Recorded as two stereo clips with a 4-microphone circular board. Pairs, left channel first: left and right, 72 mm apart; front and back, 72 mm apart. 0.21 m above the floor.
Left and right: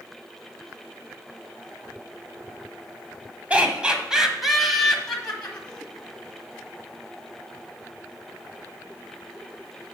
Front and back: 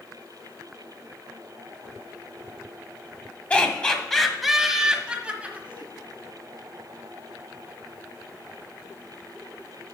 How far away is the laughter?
About 1.3 m.